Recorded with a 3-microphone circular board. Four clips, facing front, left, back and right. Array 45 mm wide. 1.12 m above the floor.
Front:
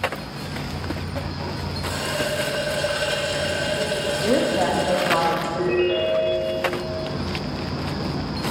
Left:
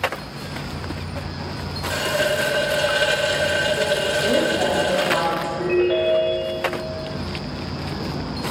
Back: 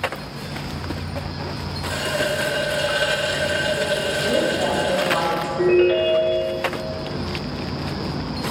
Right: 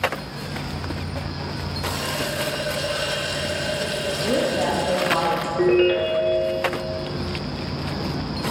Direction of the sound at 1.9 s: 110° left.